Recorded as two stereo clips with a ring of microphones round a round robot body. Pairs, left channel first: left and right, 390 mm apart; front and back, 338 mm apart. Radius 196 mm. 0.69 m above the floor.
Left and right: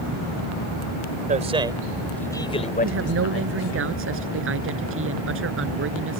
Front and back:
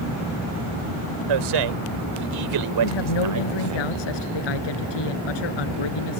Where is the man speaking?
160° right; by 3.8 s 140° left.